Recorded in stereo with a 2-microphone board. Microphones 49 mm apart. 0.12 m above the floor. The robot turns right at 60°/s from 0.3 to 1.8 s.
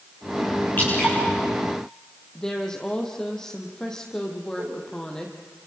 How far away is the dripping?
About 8.5 m.